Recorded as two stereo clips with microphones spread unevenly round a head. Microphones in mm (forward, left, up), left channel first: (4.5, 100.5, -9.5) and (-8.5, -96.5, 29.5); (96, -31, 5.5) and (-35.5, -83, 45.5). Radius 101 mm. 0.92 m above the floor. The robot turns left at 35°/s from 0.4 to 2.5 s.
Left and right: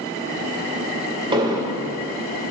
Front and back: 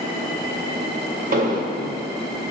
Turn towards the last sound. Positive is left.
turn(degrees=155)